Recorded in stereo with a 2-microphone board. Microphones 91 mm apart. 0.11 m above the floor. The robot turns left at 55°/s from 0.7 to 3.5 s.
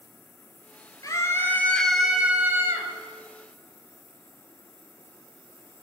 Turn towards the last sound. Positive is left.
turn(degrees=-85)